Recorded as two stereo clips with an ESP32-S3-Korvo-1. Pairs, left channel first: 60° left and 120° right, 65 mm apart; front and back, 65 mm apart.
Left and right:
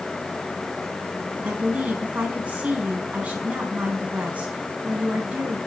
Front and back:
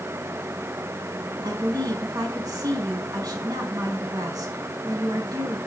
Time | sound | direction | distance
1.4 | a woman speaking | 170° left | 5.5 m